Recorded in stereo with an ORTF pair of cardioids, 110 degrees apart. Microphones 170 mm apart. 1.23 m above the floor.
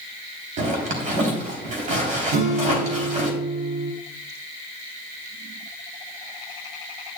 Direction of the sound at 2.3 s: 60° right.